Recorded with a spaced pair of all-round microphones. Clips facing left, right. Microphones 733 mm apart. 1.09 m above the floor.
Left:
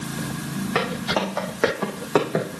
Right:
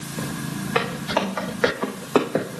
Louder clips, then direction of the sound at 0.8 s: Right 1 dB; 70° left (ahead or behind).